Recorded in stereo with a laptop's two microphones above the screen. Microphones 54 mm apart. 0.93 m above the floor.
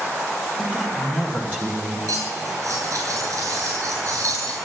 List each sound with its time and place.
0.6 s a woman speaking: 30° right (ahead or behind), 2.0 m; by 2.0 s 35° right (ahead or behind), 3.5 m
2.1 s cutlery clinking: 80° right, 8 m